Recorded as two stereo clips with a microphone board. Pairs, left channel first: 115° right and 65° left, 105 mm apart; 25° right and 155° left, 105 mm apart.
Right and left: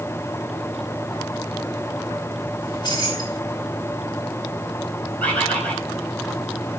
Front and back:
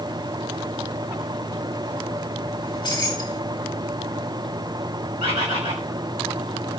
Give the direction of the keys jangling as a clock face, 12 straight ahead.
2 o'clock.